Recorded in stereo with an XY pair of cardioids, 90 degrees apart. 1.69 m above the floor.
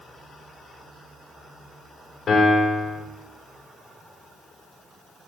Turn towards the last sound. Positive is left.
turn(degrees=65)